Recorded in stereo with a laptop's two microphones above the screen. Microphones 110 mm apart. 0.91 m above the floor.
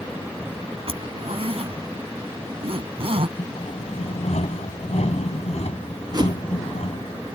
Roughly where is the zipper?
Right.